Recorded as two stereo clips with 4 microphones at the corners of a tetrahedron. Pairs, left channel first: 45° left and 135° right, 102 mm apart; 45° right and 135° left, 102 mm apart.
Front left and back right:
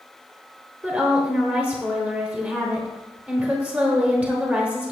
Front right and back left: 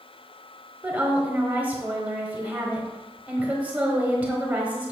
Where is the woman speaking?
175° left, 1.0 m.